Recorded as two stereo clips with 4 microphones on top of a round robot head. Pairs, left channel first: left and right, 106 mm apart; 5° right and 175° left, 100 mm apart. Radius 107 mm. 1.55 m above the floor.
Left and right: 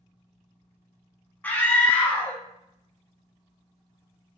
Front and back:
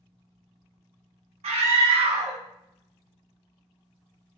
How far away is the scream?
About 0.6 m.